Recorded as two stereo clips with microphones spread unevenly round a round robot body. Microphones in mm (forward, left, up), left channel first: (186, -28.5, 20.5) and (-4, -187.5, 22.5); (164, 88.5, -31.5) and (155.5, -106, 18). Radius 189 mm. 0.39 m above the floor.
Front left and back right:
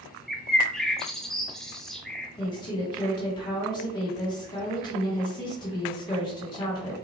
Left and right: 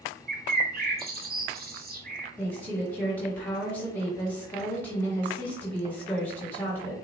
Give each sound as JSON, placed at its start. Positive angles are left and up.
{"t": 0.3, "sound": "a bird", "azimuth_deg": -45, "distance_m": 0.7}
{"t": 2.4, "sound": "a woman speaking", "azimuth_deg": 75, "distance_m": 1.1}